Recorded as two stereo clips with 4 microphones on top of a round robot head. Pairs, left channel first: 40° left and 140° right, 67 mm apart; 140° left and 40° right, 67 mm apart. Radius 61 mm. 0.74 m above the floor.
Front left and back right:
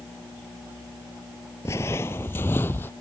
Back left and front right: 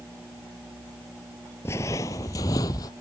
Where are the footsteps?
90° left; by 2.9 s 105° left.